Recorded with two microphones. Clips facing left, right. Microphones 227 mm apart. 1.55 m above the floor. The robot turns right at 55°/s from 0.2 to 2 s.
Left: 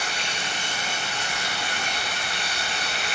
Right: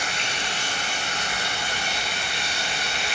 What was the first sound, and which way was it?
Running water, 125° right.